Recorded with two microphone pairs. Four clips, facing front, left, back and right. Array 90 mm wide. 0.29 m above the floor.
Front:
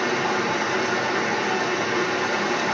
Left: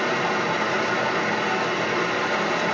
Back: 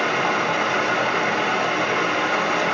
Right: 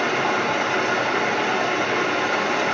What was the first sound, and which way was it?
Running water, 140° right.